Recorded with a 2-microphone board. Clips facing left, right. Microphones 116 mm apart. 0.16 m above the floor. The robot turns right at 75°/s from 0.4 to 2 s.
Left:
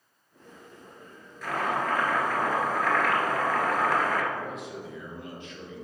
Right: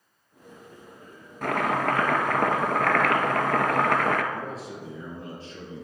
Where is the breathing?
I don't hear breathing.